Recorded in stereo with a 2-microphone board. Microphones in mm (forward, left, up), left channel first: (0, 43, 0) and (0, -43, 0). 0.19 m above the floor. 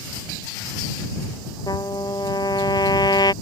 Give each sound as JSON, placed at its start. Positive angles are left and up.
{"t": 1.7, "sound": "a trumpet", "side_deg": 55}